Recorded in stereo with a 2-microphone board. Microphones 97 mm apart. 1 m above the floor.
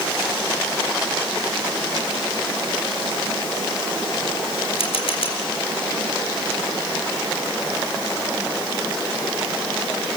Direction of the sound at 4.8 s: 75° left (ahead or behind).